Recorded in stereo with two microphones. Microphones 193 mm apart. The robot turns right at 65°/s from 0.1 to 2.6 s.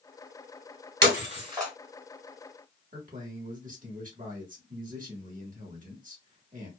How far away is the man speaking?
About 1.2 m.